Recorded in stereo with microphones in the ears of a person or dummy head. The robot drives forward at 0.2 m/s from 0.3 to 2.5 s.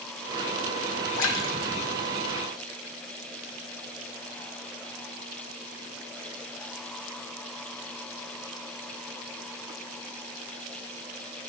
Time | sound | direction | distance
1.2 | a splash | 65° left (ahead or behind) | 0.8 m